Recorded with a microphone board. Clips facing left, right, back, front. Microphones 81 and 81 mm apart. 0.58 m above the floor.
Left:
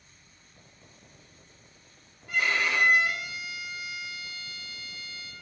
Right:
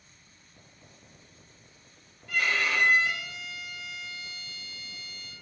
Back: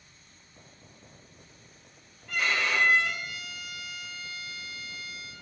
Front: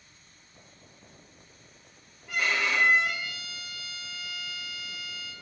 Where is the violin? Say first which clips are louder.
Left 1 dB, even; 75° left, 1.0 m.